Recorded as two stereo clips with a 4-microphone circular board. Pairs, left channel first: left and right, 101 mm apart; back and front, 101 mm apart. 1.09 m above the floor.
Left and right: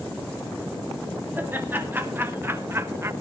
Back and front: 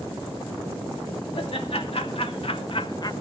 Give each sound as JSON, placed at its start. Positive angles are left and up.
{"t": 1.4, "sound": "laughter", "azimuth_deg": -160, "distance_m": 2.5}